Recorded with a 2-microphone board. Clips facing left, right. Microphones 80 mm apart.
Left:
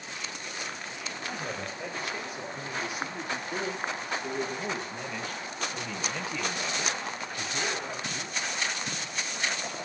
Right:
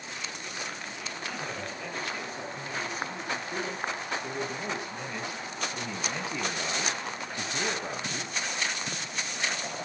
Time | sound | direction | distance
1.2 | a man speaking | 20° left (ahead or behind) | 8.5 m